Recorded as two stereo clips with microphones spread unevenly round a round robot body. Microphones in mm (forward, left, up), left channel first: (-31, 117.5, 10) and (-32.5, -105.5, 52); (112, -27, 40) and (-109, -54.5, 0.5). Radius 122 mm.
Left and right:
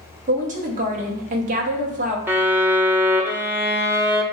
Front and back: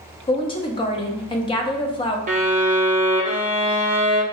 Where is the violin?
Straight behind, 0.6 m.